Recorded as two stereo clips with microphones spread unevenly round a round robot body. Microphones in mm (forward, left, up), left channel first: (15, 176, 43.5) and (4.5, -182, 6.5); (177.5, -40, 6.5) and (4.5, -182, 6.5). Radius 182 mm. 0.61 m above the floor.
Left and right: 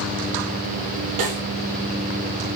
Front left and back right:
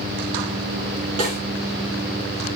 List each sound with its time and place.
1.2 s a snare drum: 140° right, 7 m